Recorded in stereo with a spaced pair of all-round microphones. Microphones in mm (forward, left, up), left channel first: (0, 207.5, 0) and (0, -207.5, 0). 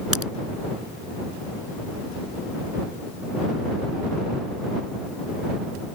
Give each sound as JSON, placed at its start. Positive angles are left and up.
{"t": 0.1, "sound": "a crack", "side_deg": -35}